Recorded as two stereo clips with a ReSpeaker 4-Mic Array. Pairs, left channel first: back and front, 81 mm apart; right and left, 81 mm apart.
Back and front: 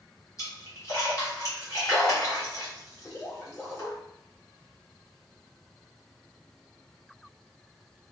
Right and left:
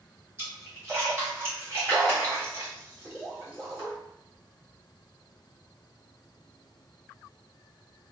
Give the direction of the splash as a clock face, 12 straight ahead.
7 o'clock.